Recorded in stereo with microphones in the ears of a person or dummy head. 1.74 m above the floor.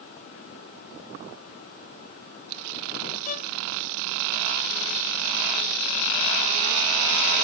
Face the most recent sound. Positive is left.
turn(degrees=45)  # may be behind; listen again after turning